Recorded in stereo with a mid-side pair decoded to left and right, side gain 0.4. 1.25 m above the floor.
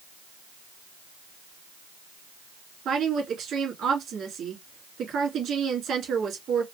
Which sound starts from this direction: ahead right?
A woman speaking, at 2.9 s.